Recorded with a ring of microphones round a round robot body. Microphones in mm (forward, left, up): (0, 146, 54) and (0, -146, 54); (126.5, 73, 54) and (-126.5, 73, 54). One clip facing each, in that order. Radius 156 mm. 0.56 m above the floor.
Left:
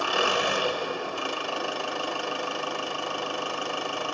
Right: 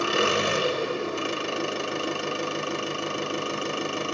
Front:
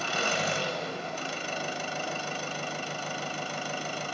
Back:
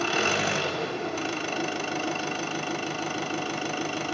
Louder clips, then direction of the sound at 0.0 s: Right 3 dB, back 5 dB; 155° right.